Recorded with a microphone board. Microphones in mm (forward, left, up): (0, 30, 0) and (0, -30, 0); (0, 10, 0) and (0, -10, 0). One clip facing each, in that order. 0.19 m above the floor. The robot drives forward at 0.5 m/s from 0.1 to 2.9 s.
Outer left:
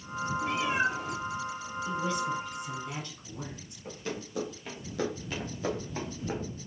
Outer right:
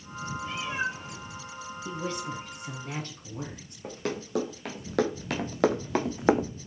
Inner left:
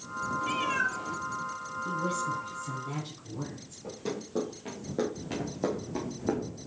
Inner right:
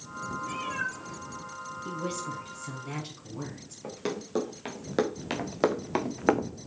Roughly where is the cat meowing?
Left.